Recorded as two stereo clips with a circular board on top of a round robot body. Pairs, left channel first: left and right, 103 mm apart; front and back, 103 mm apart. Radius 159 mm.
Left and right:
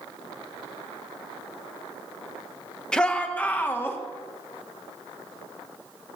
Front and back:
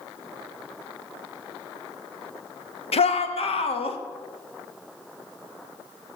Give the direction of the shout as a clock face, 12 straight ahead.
12 o'clock.